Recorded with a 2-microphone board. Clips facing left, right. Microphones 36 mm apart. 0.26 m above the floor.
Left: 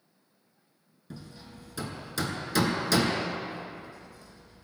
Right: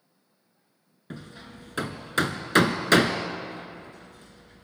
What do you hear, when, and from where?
1.1 s hammering: 55° right (ahead or behind), 0.9 m